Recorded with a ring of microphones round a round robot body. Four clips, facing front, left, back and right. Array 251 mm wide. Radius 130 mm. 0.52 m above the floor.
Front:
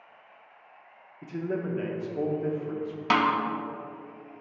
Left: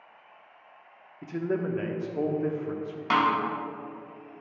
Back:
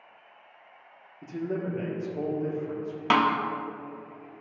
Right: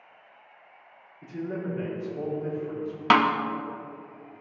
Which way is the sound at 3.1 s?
100° right.